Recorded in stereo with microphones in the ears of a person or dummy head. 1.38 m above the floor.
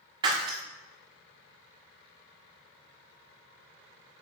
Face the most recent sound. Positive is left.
turn(degrees=-30)  # may be behind; listen again after turning